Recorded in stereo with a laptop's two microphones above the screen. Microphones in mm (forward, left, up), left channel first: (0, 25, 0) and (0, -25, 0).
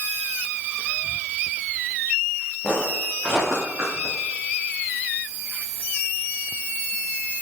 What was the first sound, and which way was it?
Footsteps, 5° right (ahead or behind).